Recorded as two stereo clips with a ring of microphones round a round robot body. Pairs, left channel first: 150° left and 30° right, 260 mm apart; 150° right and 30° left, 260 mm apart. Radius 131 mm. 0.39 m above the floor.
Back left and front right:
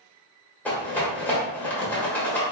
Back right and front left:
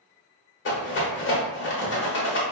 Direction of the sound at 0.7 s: 130° right.